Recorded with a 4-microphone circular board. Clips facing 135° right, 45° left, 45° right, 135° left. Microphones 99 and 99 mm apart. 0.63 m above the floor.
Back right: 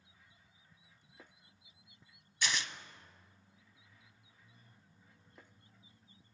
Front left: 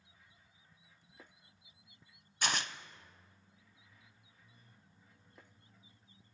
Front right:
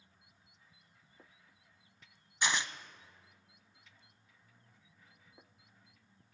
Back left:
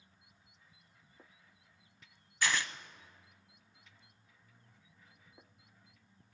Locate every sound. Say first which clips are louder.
2.4 s tearing paper: front left 2 dB, even; 20° left, 0.7 m